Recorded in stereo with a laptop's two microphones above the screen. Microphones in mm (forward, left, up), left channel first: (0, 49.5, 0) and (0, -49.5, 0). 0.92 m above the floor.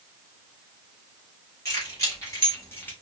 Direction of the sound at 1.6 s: 30° left (ahead or behind).